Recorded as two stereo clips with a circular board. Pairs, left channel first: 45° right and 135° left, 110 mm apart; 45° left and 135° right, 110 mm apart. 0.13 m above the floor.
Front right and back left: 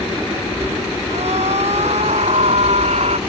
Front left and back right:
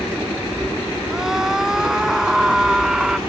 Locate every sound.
1.1 s a scream: 140° left